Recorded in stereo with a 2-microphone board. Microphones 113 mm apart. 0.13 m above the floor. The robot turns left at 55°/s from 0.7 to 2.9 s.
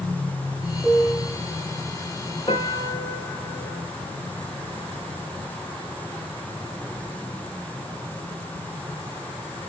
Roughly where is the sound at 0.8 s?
Left.